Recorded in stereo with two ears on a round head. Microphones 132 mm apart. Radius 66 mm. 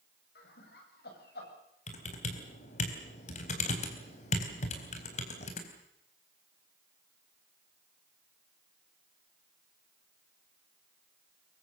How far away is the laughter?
About 8 m.